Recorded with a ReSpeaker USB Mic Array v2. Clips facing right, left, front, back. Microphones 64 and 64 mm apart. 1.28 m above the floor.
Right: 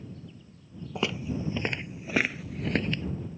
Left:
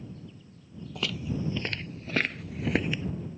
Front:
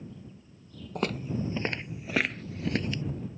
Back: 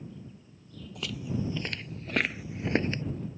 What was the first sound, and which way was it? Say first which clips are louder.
Footsteps: right 2 dB, front 4 dB; 30° right.